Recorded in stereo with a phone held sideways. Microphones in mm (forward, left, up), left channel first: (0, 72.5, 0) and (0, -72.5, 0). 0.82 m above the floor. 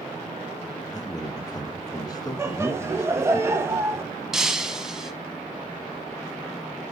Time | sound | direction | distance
0.9 | a man speaking | 25° left (ahead or behind) | 1.0 m
2.4 | laughter | 15° right (ahead or behind) | 0.9 m
4.3 | breaking glass | 5° right (ahead or behind) | 1.0 m